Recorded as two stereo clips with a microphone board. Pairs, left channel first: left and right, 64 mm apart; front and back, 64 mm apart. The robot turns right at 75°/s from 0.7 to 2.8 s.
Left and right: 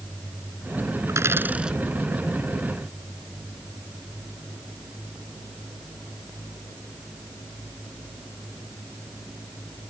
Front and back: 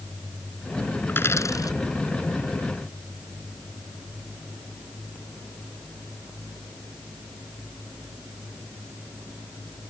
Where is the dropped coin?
60° right; by 1.8 s 5° right.